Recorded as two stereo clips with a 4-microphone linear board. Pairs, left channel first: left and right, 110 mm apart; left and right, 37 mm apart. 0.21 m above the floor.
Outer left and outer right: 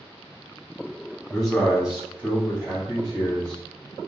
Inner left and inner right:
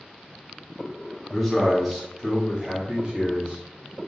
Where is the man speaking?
5° left (ahead or behind), 1.4 m; by 3.6 s 45° right (ahead or behind), 1.7 m.